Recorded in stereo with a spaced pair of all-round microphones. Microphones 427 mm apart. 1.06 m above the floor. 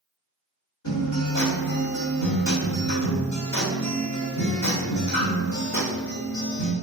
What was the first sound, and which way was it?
A guitar, 80° left.